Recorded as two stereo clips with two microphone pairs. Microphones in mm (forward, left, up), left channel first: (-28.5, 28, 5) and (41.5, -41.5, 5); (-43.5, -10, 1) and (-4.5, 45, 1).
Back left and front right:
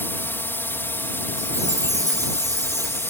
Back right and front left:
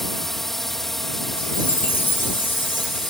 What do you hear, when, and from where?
0.0 s a drone: 155° left
1.4 s a chime: 80° right